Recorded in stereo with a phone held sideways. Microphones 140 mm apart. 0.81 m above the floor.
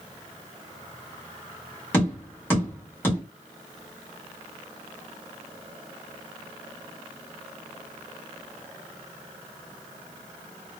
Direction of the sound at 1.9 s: 15° left (ahead or behind).